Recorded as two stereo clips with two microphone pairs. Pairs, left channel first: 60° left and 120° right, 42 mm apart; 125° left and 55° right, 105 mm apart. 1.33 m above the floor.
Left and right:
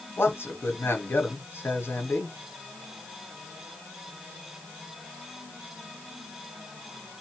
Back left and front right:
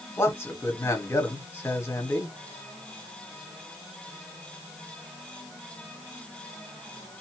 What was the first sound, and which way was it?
A man speaking, 65° left.